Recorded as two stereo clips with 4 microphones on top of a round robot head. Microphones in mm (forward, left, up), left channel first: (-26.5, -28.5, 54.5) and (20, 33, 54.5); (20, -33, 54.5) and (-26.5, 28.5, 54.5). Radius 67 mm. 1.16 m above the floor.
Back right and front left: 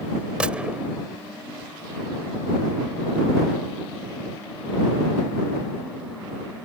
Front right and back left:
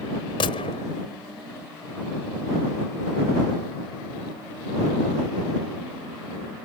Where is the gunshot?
25° right.